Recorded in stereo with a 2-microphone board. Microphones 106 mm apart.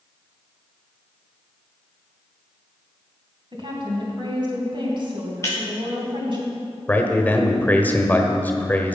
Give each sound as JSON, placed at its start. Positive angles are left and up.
{"t": 3.5, "sound": "a woman speaking", "side_deg": -50, "distance_m": 2.5}
{"t": 5.4, "sound": "breaking glass", "side_deg": 30, "distance_m": 4.0}
{"t": 6.9, "sound": "a man speaking", "side_deg": 15, "distance_m": 1.1}